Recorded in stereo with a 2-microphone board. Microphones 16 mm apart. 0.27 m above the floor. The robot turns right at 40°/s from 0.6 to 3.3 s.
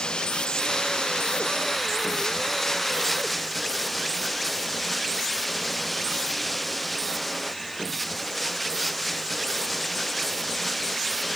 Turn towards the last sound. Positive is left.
turn(degrees=180)